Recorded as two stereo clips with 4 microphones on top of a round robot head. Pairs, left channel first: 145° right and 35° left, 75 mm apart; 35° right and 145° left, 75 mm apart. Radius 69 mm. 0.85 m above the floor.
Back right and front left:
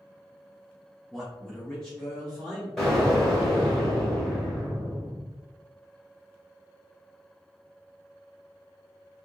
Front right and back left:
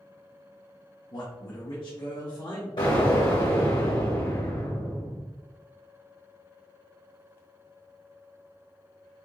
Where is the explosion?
55° right, 2 m.